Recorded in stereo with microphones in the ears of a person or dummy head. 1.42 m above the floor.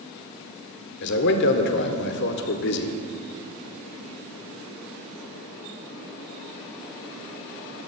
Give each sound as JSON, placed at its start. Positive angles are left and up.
{"t": 1.0, "sound": "a man speaking", "side_deg": 60, "distance_m": 1.1}